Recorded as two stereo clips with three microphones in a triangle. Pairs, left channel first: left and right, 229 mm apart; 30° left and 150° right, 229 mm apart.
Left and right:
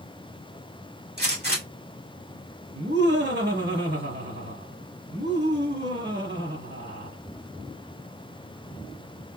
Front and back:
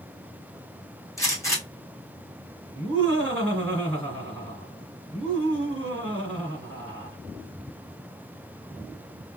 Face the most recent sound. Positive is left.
turn(degrees=-55)